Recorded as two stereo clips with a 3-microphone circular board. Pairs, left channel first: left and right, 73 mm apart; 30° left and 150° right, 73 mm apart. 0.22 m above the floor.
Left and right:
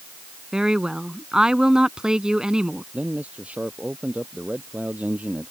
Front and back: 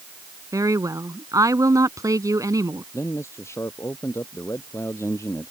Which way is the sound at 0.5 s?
165° right.